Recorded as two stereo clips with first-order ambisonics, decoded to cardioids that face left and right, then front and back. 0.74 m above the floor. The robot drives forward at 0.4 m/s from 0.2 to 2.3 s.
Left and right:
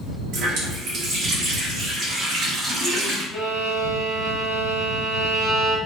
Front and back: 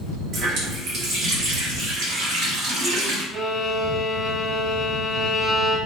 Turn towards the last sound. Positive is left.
turn(degrees=130)